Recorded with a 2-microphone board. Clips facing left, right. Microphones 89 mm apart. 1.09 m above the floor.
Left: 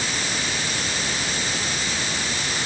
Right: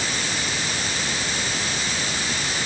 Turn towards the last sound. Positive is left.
No sound to turn to.